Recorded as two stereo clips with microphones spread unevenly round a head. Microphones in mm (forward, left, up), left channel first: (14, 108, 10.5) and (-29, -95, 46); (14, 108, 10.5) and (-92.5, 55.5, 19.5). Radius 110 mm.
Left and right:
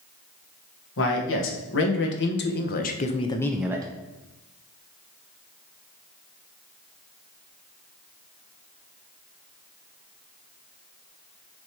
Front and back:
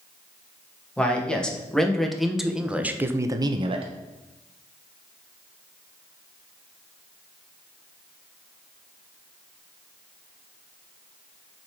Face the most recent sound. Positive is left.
turn(degrees=-155)